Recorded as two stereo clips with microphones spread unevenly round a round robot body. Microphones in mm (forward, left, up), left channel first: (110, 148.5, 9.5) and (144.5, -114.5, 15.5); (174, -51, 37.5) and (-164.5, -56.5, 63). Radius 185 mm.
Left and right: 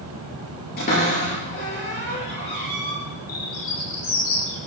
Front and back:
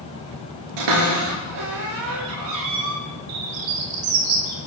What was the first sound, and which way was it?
A cupboard door, 165° left.